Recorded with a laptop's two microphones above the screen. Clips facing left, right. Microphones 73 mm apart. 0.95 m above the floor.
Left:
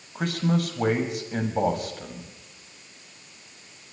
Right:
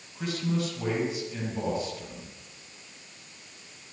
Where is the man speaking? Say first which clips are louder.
Left 5 dB; 60° left (ahead or behind), 5.5 m.